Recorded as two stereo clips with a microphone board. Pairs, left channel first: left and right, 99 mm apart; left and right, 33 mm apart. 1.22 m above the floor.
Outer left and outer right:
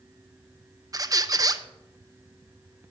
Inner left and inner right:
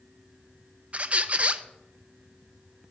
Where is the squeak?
40° right (ahead or behind), 0.5 m.